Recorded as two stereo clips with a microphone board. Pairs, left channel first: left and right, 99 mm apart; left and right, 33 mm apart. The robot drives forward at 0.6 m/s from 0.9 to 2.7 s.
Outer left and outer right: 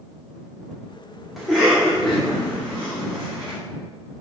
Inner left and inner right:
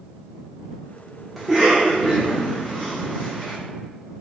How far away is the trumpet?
No trumpet in this recording.